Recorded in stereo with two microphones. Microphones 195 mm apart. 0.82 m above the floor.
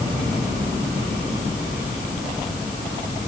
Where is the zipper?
No zipper in this recording.